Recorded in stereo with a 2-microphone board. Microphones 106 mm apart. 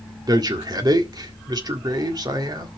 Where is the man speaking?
40° right (ahead or behind), 1.7 m.